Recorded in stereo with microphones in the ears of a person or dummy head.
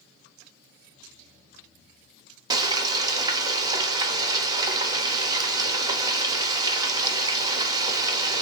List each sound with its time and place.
2.5 s frying: 25° right (ahead or behind), 0.5 m